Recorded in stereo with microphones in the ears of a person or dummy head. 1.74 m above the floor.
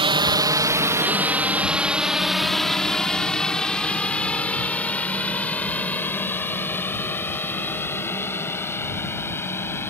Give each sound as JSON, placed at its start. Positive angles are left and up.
{"t": 0.0, "sound": "a drone", "side_deg": -25}